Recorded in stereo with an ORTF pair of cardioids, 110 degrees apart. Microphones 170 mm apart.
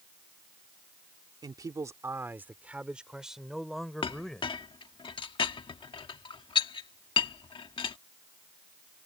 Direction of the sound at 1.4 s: 25° right.